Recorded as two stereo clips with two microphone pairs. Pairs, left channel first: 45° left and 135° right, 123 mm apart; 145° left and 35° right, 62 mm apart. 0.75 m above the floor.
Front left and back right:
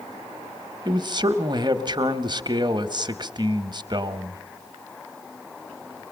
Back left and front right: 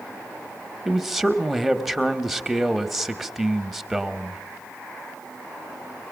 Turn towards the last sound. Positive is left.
turn(degrees=-120)